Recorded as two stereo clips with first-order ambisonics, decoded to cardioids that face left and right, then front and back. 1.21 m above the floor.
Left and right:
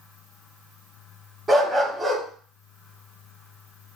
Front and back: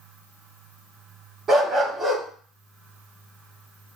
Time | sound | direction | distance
1.5 | a dog barking | 160° right | 0.7 m